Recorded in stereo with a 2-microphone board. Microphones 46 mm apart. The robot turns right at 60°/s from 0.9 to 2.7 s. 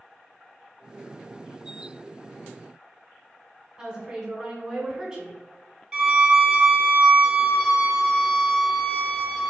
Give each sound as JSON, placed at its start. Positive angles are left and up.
{"t": 3.8, "sound": "a woman speaking", "side_deg": -15, "distance_m": 1.6}
{"t": 5.9, "sound": "a violin", "side_deg": -15, "distance_m": 0.8}